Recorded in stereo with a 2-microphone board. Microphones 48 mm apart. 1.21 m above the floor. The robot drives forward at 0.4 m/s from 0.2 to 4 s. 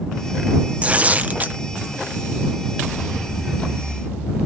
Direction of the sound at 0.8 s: 25° right (ahead or behind).